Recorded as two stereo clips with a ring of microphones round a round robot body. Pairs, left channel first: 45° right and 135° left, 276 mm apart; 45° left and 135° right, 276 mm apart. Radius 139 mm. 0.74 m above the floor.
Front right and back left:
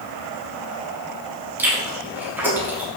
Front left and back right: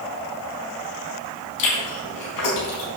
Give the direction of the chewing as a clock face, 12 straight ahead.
10 o'clock.